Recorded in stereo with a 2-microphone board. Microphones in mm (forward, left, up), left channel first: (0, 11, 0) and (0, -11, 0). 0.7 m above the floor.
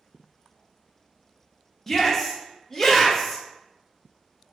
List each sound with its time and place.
1.9 s a shout: 15° left (ahead or behind), 0.6 m